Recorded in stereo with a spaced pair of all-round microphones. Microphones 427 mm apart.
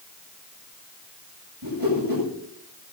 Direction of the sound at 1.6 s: 55° right (ahead or behind).